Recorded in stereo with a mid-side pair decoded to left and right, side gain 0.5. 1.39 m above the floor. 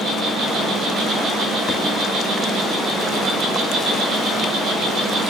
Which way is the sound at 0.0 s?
55° right.